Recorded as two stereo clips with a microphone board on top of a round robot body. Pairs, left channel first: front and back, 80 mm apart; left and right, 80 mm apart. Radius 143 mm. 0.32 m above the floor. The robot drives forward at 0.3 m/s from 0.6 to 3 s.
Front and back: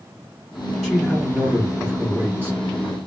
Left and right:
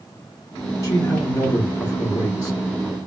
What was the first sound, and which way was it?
A man speaking, 85° left.